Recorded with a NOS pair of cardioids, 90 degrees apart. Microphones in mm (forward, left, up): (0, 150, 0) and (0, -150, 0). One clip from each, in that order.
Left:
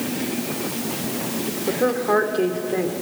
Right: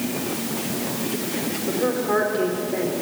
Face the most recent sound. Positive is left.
turn(degrees=45)